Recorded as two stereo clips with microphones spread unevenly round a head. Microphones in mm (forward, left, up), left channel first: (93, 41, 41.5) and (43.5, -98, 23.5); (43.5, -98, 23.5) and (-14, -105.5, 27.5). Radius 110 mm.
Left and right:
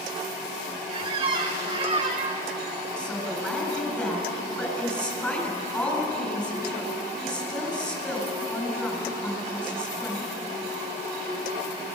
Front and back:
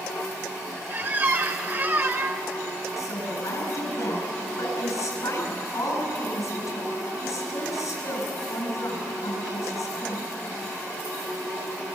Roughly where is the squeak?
Behind.